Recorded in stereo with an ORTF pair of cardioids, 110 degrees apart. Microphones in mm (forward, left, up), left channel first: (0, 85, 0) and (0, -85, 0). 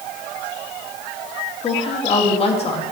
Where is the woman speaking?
35° left, 2 m.